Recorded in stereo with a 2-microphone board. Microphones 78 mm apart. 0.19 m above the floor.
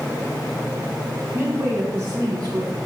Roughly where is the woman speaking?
Right.